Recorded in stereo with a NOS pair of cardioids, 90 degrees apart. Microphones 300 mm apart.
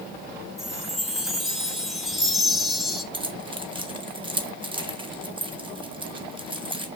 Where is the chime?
Straight ahead, 1.7 m.